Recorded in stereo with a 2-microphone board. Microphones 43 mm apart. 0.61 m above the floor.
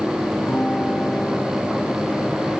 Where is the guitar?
75° left (ahead or behind), 7.5 m.